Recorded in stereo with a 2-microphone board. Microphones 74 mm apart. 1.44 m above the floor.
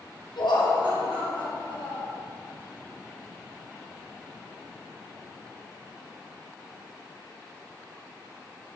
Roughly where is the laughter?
Left.